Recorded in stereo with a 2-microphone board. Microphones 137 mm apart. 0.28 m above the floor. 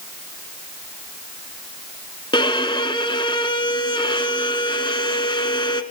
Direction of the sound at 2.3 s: 35° left (ahead or behind).